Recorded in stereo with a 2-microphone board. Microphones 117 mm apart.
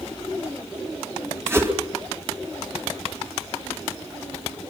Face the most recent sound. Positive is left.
turn(degrees=-25)  # may be behind; listen again after turning